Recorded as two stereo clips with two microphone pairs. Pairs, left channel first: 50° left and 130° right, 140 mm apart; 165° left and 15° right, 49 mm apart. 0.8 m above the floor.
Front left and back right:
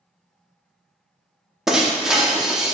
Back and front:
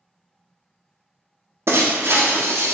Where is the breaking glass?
45° right, 0.6 m.